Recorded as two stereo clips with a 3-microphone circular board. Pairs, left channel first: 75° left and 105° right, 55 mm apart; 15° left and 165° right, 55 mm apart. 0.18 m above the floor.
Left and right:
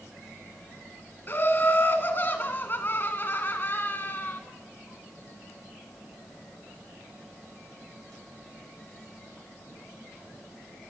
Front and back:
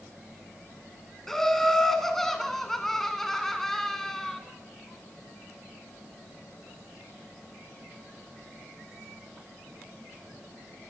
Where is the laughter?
95° left, 1.3 m.